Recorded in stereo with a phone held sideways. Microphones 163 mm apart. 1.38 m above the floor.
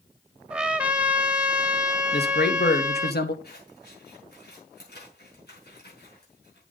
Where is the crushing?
No crushing in this recording.